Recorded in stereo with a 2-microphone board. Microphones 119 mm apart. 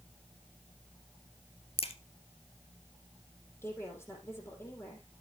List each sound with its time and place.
1.8 s a crack: 55° left (ahead or behind), 1.5 m
3.6 s a woman speaking: 20° left (ahead or behind), 4 m